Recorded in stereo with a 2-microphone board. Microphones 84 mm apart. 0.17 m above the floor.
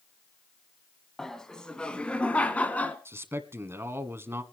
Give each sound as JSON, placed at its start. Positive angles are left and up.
{"t": 1.2, "sound": "laughter", "side_deg": 5, "distance_m": 1.4}
{"t": 3.0, "sound": "a man speaking", "side_deg": -30, "distance_m": 1.5}